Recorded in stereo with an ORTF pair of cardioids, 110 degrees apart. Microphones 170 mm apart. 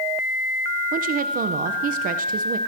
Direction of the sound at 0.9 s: 60° right.